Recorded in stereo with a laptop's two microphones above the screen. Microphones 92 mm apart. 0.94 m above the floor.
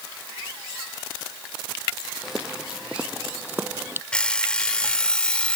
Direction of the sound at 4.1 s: 10° left (ahead or behind).